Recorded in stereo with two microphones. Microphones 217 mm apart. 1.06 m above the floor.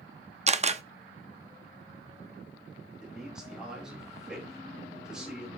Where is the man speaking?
5° right (ahead or behind), 5.5 m.